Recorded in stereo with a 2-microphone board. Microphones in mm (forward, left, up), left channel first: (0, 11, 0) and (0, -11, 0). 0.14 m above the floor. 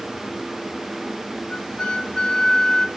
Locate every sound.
1.5 s a flute: 40° left (ahead or behind), 0.6 m